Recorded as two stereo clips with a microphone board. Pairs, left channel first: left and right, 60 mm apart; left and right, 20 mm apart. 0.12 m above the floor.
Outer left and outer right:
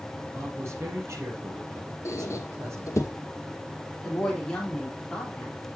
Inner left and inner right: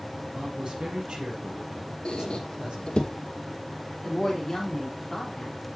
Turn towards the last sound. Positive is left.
turn(degrees=15)  # may be behind; listen again after turning